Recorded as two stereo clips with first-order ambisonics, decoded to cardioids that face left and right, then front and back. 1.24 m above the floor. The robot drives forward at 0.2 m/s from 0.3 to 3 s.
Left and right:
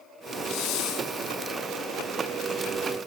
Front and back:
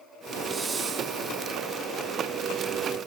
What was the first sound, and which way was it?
A hiss, 110° left.